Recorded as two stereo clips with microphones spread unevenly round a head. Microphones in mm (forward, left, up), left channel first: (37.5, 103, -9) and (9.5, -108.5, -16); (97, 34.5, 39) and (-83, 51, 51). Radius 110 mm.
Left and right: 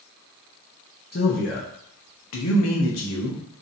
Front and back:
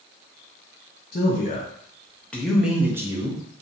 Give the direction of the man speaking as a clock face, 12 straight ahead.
11 o'clock.